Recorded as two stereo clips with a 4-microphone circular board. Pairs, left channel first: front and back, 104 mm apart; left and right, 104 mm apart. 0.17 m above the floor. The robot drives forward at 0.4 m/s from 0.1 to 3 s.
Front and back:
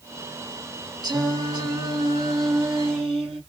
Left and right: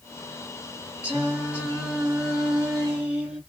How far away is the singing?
About 1.6 m.